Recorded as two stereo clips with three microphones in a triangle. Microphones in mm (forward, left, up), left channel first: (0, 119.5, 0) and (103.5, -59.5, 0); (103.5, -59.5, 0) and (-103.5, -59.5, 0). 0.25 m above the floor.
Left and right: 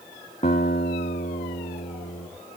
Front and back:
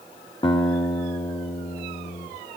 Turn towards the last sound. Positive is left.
turn(degrees=65)